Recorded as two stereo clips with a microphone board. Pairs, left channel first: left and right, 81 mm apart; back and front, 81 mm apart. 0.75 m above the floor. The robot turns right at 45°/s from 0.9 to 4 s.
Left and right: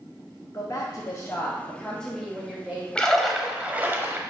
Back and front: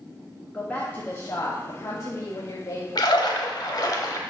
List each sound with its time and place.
0.5 s a woman speaking: 120° left, 1.0 m; by 2.9 s 155° right, 1.0 m
3.0 s a splash: 165° left, 0.9 m; by 4.2 s 145° right, 0.9 m